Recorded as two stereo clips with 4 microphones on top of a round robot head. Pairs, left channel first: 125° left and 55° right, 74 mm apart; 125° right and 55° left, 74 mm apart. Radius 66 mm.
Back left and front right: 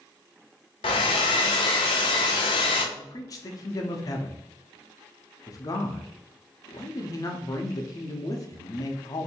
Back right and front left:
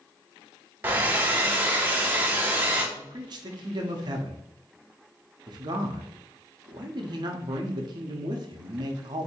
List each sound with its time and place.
0.8 s a hair dryer: 120° left, 0.6 m
3.0 s a man speaking: 85° left, 0.7 m